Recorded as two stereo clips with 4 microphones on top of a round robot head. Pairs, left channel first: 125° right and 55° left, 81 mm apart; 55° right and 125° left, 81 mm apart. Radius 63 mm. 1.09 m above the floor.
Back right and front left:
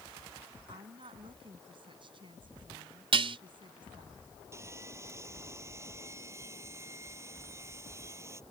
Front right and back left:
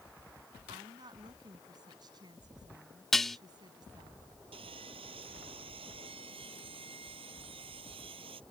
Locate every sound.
0.7 s a woman speaking: 85° left
3.1 s dishes clattering: 30° left
4.5 s sawing: 115° left